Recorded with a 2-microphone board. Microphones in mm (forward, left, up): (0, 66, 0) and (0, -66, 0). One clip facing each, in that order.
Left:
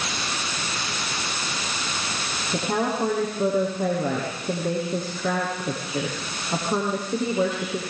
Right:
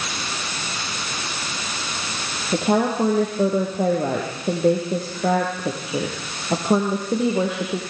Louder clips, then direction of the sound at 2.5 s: Right 6 dB; 75° right (ahead or behind).